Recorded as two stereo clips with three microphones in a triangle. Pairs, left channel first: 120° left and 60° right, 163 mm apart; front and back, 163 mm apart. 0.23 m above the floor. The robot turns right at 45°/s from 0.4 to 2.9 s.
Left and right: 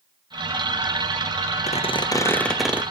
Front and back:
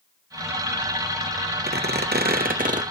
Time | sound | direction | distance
1.7 | a squeak | 170° left | 1.3 m